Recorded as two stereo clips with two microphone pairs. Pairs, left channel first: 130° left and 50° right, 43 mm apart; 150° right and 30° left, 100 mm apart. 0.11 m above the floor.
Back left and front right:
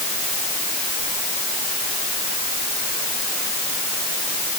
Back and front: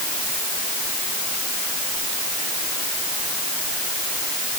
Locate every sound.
Only background noise.